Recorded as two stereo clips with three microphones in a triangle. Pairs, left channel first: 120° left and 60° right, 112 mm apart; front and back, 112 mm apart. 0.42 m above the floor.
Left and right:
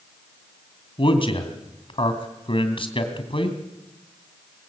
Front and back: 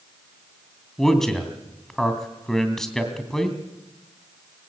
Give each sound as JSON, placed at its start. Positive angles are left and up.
{"t": 1.0, "sound": "a man speaking", "azimuth_deg": 85, "distance_m": 2.5}